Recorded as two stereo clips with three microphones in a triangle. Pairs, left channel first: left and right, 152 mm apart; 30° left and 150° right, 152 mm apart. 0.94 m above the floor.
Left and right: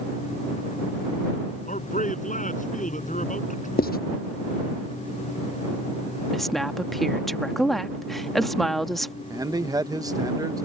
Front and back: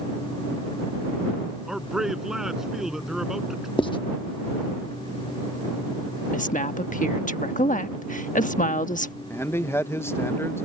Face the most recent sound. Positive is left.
turn(degrees=-40)